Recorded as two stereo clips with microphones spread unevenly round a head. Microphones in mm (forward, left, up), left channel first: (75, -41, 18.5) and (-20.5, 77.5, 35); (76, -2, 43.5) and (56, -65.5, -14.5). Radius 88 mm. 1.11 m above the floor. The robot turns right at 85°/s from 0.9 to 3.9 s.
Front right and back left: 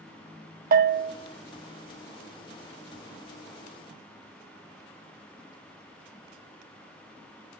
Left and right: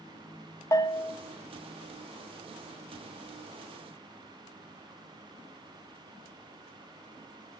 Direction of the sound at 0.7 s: 105° left.